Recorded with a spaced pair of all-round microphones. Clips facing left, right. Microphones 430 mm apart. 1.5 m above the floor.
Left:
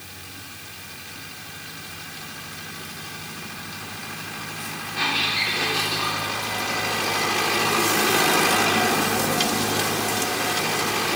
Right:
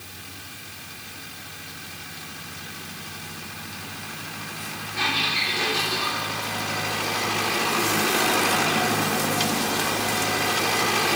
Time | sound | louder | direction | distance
5.0 | a squeak | even | 15° right (ahead or behind) | 3 m